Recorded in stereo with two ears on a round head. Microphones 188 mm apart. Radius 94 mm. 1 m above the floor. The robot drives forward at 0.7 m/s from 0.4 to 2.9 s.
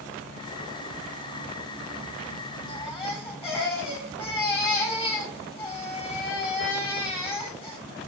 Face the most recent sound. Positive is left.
turn(degrees=25)  # may be behind; listen again after turning